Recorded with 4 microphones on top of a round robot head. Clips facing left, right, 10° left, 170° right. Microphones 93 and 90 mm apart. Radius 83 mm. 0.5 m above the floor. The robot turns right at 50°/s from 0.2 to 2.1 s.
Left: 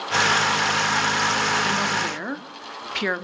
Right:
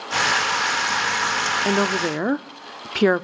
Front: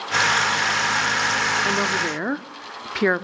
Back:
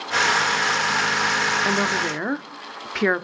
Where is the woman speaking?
100° right, 1.2 m; by 3.2 s 75° right, 1.2 m.